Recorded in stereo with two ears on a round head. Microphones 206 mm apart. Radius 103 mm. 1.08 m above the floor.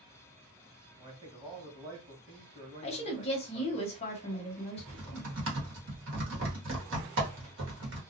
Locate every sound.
1.0 s a man speaking: 20° right (ahead or behind), 1.0 m
2.8 s a woman speaking: 25° left (ahead or behind), 0.8 m
4.8 s typing on a keyboard: 55° right (ahead or behind), 1.1 m